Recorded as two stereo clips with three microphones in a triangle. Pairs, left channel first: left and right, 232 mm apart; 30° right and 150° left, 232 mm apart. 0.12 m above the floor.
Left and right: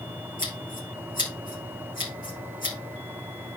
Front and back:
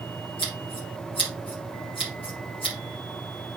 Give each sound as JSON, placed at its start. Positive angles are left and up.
{"t": 0.4, "sound": "scissors", "azimuth_deg": 35, "distance_m": 6.0}